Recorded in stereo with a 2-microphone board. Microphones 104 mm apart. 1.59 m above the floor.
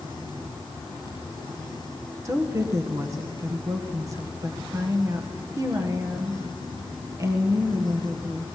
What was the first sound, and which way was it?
A woman speaking, 30° right (ahead or behind).